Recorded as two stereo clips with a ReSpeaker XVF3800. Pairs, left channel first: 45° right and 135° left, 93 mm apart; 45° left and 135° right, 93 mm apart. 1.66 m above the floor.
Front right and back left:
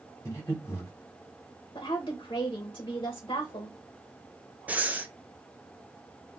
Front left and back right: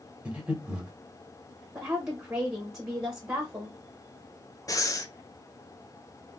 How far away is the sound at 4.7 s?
About 0.6 m.